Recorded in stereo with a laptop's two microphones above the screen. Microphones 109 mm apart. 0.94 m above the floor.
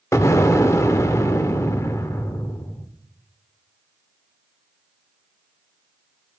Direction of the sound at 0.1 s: 30° left (ahead or behind).